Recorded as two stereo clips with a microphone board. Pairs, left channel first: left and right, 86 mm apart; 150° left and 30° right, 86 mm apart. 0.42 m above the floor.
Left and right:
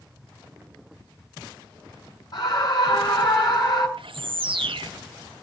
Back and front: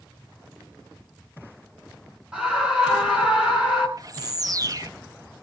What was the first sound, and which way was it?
A scream, 50° left.